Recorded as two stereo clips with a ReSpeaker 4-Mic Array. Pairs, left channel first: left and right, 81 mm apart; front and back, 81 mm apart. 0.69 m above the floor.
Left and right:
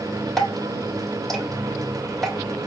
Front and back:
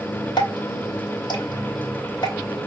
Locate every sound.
0.4 s dripping: 5° left, 1.9 m